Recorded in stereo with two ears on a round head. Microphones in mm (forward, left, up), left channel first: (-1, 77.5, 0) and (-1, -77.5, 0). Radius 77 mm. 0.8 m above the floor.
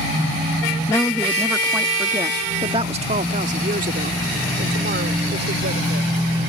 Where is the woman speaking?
15° left (ahead or behind); by 6.2 s 65° right (ahead or behind).